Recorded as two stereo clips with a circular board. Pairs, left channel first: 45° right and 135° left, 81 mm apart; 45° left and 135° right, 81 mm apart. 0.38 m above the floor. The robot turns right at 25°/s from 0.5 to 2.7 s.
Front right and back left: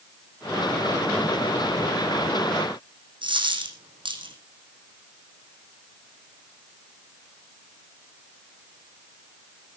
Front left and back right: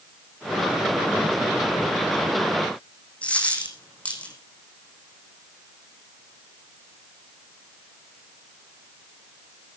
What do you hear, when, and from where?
3.2 s a dropped coin: 120° left, 3 m